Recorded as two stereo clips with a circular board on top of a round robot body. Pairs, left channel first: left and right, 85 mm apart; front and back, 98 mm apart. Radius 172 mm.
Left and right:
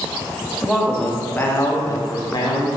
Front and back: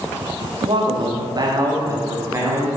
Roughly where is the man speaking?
Behind.